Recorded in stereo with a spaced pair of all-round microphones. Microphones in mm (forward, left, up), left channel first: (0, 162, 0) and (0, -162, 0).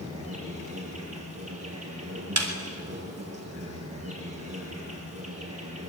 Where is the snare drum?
50° right (ahead or behind), 3.5 m.